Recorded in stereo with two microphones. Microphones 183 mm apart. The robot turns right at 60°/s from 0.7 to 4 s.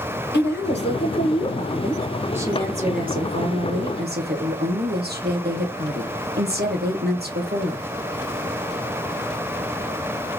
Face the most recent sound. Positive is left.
turn(degrees=-65)